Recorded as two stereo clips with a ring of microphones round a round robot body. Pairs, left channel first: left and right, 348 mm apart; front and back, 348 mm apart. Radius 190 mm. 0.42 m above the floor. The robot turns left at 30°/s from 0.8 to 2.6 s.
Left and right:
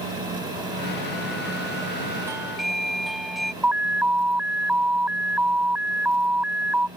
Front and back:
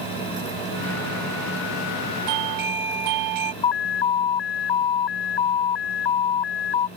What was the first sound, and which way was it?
A doorbell, 170° right.